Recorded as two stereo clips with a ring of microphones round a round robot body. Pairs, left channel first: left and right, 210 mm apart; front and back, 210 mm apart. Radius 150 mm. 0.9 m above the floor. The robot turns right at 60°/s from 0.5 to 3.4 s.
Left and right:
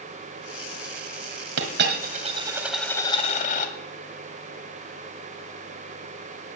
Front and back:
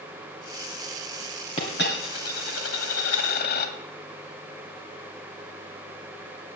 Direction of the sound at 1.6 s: 70° right.